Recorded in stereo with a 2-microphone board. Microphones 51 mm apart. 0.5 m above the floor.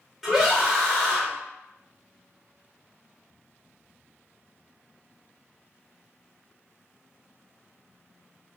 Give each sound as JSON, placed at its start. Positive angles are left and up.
{"t": 0.2, "sound": "a scream", "side_deg": -5, "distance_m": 1.4}